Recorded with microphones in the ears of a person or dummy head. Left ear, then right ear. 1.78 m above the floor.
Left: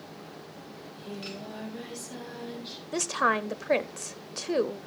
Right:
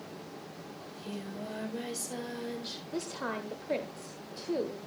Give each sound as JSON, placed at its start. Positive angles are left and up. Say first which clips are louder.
{"t": 0.8, "sound": "singing", "louder": "left 3 dB", "side_deg": -45, "distance_m": 4.5}
{"t": 2.9, "sound": "a woman speaking", "louder": "left 12 dB", "side_deg": 50, "distance_m": 0.6}